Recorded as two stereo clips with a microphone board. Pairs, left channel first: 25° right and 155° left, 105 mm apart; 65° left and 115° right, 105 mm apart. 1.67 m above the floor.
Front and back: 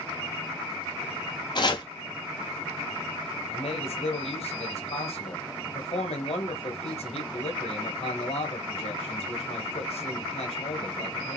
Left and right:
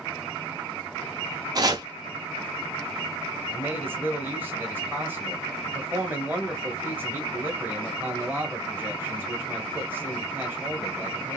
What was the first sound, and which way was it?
Chopping, 65° right.